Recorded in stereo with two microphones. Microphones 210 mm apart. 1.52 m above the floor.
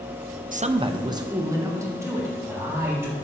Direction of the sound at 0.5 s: 40° right (ahead or behind).